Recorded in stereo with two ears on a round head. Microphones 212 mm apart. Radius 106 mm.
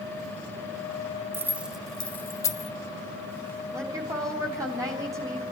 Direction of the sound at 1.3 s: 10° right (ahead or behind).